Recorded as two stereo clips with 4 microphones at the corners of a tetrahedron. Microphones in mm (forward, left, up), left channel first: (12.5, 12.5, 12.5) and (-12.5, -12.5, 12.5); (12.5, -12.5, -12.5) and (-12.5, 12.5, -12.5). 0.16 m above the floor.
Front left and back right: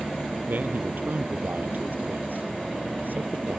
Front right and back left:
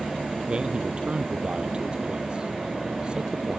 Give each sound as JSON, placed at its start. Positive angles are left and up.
{"t": 0.5, "sound": "a man speaking", "azimuth_deg": -165}